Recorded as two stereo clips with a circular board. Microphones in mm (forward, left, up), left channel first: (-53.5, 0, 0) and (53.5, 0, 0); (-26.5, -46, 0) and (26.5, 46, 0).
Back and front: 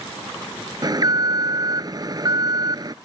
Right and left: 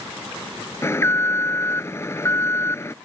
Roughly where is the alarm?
Ahead right.